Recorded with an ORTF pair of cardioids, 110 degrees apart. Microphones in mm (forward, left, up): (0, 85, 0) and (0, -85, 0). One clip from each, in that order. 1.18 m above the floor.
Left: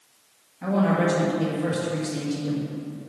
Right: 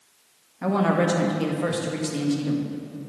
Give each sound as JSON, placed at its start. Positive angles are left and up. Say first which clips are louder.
{"t": 0.6, "sound": "a woman speaking", "louder": "right 1 dB", "azimuth_deg": -30, "distance_m": 1.5}